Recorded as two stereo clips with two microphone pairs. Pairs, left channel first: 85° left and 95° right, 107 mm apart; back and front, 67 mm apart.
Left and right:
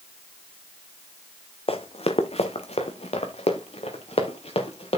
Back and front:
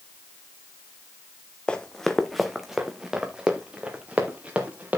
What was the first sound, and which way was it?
Running footsteps, 105° left.